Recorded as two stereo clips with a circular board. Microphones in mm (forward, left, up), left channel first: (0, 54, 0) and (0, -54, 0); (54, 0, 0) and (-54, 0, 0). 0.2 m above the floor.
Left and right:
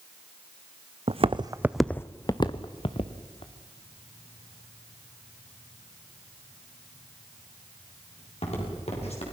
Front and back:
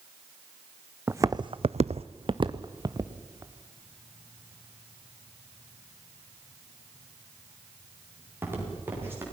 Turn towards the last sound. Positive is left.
turn(degrees=110)